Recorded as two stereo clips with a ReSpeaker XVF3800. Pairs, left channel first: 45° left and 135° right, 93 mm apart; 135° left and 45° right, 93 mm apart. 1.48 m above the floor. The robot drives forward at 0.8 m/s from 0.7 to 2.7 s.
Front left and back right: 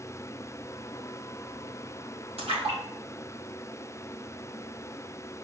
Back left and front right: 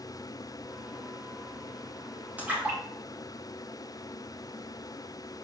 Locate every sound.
2.4 s a splash: 120° right, 2.5 m; by 4.2 s 125° right, 2.5 m